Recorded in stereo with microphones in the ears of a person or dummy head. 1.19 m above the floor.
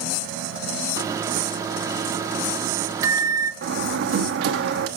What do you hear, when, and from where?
1.0 s a microwave: 15° right (ahead or behind), 0.6 m
3.6 s a door slam: 70° right (ahead or behind), 1.0 m